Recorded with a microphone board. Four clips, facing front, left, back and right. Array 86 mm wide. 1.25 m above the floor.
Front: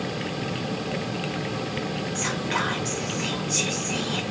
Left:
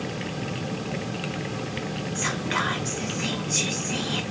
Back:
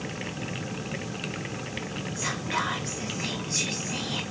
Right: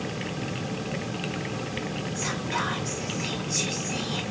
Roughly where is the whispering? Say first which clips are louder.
Left 3 dB, front 1 dB; left.